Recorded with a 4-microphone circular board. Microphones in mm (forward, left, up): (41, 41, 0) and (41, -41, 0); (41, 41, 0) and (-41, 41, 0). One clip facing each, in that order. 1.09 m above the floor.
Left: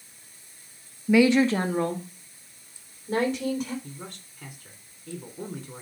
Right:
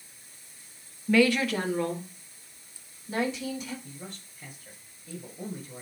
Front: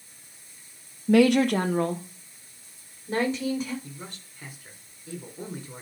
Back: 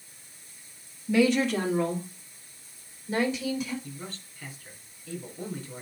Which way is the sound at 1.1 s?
10° left.